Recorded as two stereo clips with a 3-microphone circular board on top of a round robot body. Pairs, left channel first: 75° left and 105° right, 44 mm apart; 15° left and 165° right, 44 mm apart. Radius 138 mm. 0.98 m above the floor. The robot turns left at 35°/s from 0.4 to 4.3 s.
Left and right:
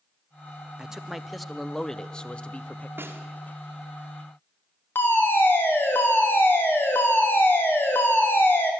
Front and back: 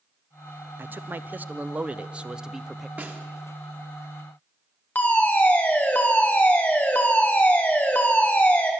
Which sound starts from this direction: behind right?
A snare drum, at 3.0 s.